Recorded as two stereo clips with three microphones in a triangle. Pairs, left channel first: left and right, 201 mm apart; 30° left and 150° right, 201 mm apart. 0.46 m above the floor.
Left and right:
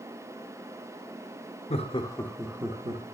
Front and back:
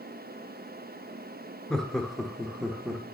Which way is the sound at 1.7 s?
115° left.